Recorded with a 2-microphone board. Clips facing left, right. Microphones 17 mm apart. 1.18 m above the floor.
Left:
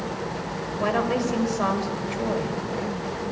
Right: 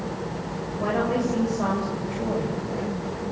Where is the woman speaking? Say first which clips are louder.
Even; 40° left (ahead or behind), 6.5 m.